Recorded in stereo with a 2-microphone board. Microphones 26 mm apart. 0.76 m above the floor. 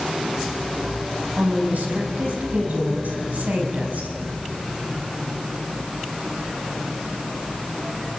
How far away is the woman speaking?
About 6 m.